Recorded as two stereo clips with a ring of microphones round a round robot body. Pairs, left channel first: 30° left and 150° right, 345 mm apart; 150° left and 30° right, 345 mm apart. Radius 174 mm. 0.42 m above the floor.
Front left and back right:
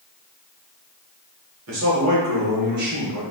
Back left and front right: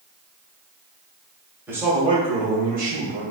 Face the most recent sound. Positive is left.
turn(degrees=-85)